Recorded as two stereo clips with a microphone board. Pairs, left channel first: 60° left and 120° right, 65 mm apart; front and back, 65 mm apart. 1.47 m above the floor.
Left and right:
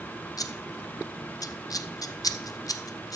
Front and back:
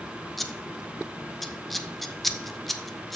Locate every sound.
0.4 s scissors: 90° left, 0.5 m